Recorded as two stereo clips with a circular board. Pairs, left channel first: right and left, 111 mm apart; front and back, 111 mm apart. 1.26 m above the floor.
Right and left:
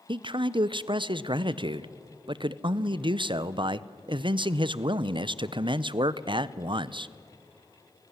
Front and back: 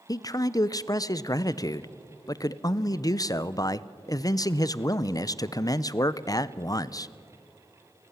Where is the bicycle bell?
I don't hear a bicycle bell.